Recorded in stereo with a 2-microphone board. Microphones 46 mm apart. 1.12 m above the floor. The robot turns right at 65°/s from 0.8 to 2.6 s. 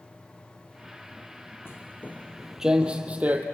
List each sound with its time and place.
1.6 s footsteps: 55° left (ahead or behind), 1.8 m; by 3.4 s 35° right (ahead or behind), 2.5 m